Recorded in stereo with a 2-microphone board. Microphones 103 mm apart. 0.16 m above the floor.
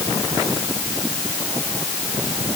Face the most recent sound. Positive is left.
No sound to turn to.